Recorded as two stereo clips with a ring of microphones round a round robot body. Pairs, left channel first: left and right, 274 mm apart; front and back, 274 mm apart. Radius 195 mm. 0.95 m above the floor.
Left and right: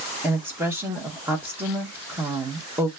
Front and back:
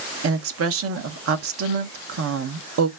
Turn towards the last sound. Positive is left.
turn(degrees=-170)